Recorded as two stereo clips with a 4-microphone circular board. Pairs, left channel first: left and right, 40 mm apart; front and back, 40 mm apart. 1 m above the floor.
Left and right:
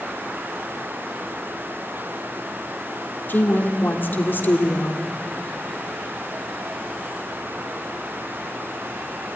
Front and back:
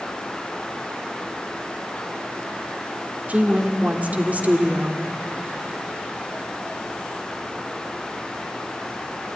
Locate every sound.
3.3 s a woman speaking: 130° left, 2.5 m